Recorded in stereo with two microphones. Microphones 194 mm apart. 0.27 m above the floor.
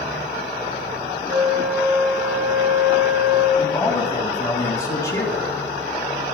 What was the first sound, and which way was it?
A flute, 15° right (ahead or behind).